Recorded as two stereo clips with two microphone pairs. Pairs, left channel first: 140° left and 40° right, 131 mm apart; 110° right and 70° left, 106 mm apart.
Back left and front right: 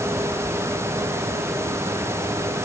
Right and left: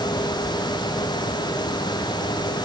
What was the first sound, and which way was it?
Only background noise.